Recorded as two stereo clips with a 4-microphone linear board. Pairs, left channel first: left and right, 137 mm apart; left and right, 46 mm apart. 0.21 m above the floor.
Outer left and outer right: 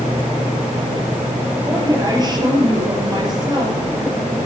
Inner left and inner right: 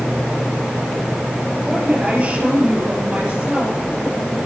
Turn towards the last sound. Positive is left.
turn(degrees=-30)  # may be behind; listen again after turning